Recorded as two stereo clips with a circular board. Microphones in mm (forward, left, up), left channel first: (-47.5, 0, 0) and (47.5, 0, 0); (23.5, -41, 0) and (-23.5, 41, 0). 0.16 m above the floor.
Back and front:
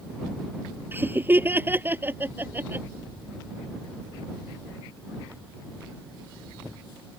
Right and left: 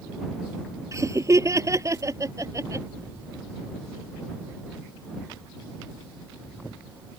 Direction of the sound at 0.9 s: 65° left.